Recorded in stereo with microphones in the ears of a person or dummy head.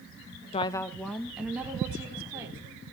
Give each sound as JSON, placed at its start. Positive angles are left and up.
{"t": 0.5, "sound": "a woman speaking", "side_deg": 30, "distance_m": 0.7}